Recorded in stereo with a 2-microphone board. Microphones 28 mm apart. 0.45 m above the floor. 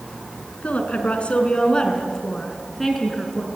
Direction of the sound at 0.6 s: 45° left (ahead or behind).